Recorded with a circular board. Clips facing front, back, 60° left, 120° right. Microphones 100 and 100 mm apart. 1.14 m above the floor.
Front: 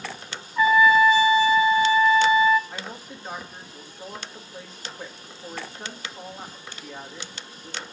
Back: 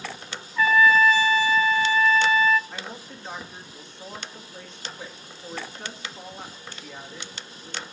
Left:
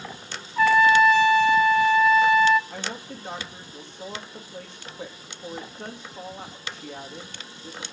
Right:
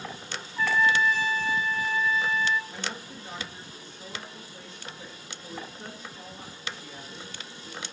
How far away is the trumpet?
About 0.6 m.